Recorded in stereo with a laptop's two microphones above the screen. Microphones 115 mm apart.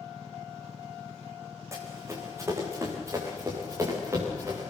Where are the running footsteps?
25° right (ahead or behind), 5 m; by 4.7 s 20° right (ahead or behind), 9 m.